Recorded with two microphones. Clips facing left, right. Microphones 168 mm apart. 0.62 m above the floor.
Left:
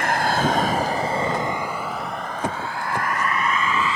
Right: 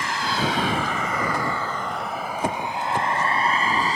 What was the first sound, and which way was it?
A vehicle, 60° left (ahead or behind).